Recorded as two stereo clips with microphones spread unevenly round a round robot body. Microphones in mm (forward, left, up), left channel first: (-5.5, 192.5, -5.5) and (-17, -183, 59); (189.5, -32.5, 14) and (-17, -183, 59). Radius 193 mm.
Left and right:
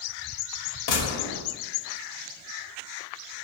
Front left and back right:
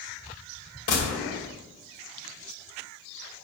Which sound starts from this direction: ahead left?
A gunshot, at 0.9 s.